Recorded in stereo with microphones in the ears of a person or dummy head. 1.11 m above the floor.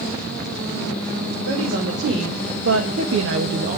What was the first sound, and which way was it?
A woman speaking, 50° right (ahead or behind).